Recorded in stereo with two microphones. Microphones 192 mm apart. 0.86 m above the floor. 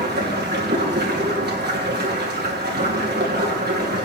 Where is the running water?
60° right (ahead or behind), 2.5 m.